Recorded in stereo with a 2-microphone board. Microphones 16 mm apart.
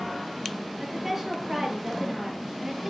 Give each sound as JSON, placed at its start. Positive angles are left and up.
{"t": 0.8, "sound": "a woman speaking", "side_deg": -15, "distance_m": 4.0}